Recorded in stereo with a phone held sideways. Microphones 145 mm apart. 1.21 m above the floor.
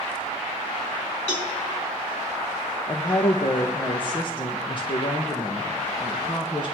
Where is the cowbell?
60° left (ahead or behind), 3 m.